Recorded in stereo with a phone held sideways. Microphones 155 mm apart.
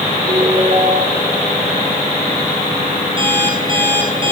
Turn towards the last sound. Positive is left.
turn(degrees=-35)  # may be behind; listen again after turning